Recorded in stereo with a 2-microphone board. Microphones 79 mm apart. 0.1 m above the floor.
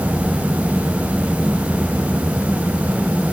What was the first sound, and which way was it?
Only background noise.